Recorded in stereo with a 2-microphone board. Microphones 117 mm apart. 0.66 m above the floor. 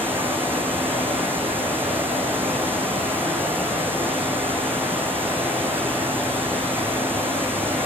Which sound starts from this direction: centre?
Running water, at 0.0 s.